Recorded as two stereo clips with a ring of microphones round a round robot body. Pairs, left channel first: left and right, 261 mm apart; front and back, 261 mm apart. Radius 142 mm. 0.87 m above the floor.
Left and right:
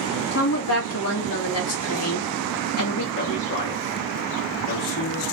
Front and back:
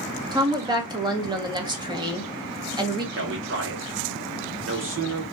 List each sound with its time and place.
0.3 s a woman speaking: 110° left, 1.7 m
3.1 s a man speaking: 140° left, 2 m